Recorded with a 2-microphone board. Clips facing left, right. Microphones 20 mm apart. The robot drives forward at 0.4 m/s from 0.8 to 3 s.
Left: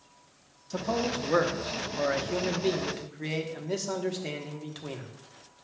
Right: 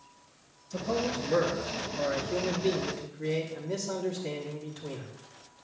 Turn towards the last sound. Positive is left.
turn(degrees=60)  # may be behind; listen again after turning